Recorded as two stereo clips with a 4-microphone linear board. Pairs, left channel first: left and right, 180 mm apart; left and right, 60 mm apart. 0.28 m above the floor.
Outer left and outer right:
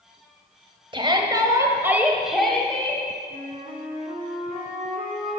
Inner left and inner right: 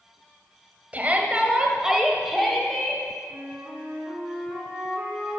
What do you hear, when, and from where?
0.9 s a shout: 30° right (ahead or behind), 1.2 m; by 3.0 s 10° left (ahead or behind), 1.4 m
3.3 s a flute: 45° right (ahead or behind), 3.5 m